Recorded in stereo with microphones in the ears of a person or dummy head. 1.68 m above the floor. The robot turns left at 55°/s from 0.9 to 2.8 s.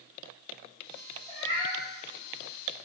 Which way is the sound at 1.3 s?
40° right (ahead or behind).